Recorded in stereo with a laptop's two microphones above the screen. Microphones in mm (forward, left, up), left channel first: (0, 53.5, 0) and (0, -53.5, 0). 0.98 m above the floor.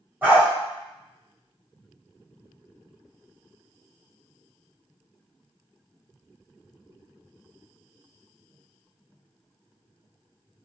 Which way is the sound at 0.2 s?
20° right (ahead or behind).